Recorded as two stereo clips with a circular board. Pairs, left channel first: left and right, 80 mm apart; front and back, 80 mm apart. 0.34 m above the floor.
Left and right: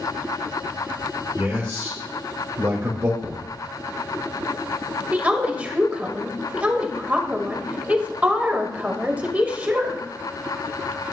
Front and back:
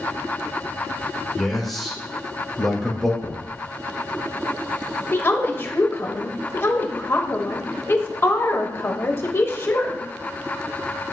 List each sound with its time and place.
1.4 s a man speaking: 90° right, 1.8 m
3.2 s knocking: straight ahead, 2 m
5.1 s a woman speaking: 30° right, 1.3 m